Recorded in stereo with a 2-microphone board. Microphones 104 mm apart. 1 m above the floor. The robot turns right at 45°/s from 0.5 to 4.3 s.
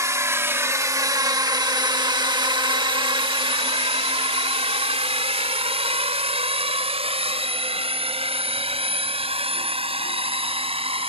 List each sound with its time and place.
0.0 s a drone: 30° right (ahead or behind); by 11.1 s 65° right (ahead or behind)